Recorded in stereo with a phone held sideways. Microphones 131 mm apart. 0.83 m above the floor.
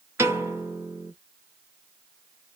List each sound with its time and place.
0.2 s a piano: 20° right (ahead or behind), 1.2 m